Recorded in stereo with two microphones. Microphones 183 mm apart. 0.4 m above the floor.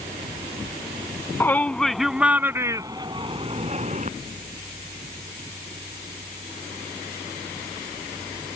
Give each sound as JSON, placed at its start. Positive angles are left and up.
{"t": 1.4, "sound": "a shout", "side_deg": 10}